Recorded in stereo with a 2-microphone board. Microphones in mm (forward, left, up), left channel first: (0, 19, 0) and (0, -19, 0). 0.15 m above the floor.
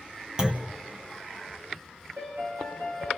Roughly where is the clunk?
Centre.